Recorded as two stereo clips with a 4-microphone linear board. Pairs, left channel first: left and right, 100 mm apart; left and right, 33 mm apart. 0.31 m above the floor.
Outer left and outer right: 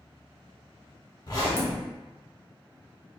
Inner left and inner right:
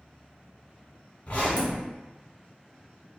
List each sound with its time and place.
1.3 s a zipper: 45° left (ahead or behind), 1.0 m